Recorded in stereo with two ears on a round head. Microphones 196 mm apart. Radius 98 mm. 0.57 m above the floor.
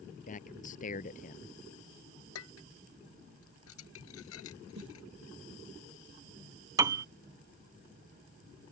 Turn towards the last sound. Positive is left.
turn(degrees=-15)  # may be behind; listen again after turning